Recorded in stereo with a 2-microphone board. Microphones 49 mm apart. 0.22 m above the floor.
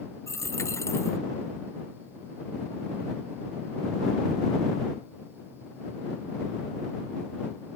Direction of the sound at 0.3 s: 80° left.